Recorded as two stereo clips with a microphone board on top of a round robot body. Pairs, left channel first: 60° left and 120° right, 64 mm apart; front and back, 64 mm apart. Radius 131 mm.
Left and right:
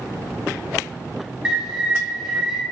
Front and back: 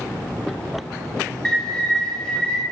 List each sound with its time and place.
1.4 s a bird: 60° right, 0.8 m